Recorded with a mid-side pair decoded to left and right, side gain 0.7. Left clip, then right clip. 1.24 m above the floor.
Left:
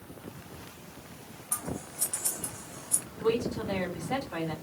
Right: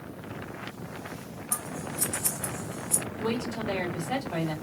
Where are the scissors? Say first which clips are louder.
Right 3 dB; 50° right, 1.9 m.